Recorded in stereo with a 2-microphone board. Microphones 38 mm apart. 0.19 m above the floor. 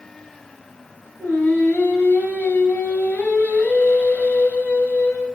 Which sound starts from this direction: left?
Singing, at 1.2 s.